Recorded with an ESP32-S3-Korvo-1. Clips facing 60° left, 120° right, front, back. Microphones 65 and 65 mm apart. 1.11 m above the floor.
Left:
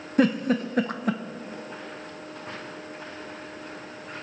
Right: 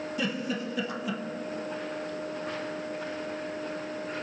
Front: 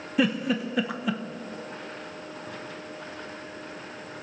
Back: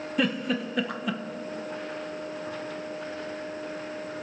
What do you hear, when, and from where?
0.2 s a giggle: 85° left, 0.7 m